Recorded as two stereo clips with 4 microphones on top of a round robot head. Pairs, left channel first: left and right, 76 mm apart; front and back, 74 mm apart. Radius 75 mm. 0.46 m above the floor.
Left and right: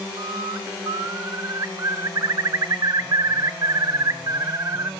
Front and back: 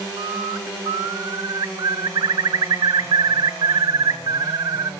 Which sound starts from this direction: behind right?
A bird, at 0.2 s.